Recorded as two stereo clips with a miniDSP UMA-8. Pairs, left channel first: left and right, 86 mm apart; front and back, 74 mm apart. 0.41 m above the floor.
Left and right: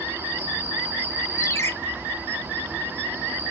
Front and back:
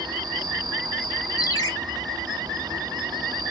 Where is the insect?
155° right, 1.0 m.